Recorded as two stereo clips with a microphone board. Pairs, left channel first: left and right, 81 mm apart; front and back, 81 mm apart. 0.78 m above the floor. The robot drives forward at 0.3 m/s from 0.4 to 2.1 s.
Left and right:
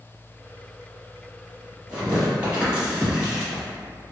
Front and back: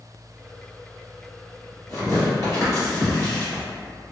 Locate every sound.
1.9 s tearing paper: 25° right, 1.6 m